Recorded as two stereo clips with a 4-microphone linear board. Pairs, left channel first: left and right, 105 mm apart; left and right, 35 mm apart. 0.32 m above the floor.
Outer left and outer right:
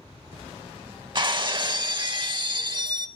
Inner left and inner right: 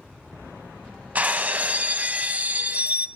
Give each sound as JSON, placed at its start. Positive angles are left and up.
{"t": 1.1, "sound": "breaking glass", "side_deg": -45, "distance_m": 0.5}